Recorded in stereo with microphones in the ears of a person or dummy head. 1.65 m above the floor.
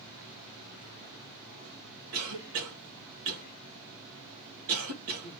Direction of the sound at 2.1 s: 80° right.